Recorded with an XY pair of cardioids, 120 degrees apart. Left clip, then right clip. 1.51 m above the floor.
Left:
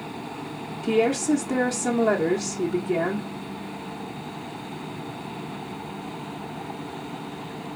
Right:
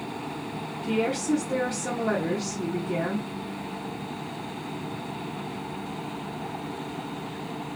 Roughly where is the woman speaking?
Ahead left.